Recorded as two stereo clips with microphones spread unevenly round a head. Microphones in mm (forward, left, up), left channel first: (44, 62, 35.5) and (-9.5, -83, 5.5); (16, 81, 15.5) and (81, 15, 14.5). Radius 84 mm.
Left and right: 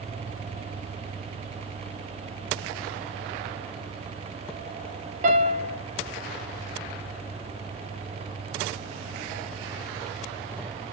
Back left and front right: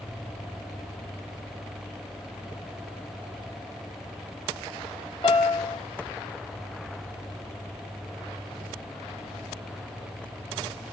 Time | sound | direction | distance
5.2 | a piano | 160° right | 1.4 m